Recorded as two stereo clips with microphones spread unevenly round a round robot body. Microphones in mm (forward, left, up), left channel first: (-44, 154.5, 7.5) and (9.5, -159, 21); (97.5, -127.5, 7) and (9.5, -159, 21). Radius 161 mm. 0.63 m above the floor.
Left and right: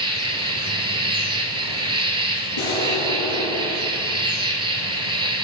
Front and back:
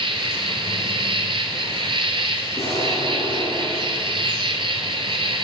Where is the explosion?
100° left, 3.5 m.